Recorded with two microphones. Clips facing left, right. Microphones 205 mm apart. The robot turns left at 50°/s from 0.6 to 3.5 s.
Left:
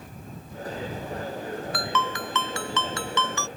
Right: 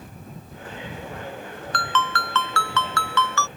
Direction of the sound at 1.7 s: 10° left (ahead or behind).